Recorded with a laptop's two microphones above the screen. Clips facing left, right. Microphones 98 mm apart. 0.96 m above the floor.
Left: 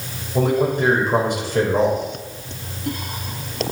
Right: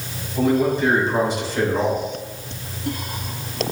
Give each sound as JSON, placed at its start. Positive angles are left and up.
{"t": 0.3, "sound": "a man speaking", "side_deg": 55, "distance_m": 4.0}